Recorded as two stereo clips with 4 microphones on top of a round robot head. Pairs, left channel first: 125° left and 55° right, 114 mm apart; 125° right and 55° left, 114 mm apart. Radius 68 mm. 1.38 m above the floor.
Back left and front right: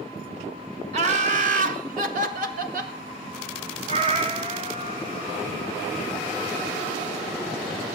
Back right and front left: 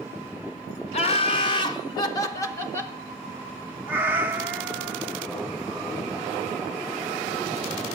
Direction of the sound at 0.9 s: 85° right.